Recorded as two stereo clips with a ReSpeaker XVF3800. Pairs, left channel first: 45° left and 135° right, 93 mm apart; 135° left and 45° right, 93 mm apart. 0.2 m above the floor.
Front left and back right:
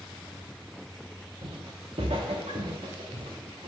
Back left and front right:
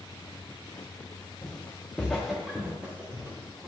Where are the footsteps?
160° right, 1.6 m; by 3.7 s 110° right, 2.5 m.